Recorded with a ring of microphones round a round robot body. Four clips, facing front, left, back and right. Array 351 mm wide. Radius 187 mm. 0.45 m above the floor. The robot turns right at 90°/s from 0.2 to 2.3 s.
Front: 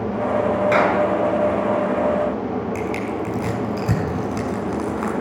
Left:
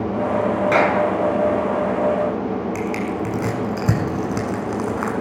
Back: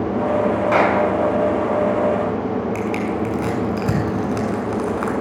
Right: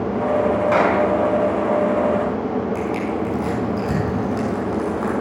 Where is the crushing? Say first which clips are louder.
Right 1 dB, back 2 dB; 100° left, 5.5 m.